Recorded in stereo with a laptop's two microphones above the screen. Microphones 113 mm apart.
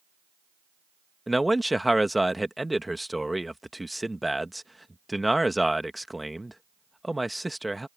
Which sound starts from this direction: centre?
A man speaking, at 1.3 s.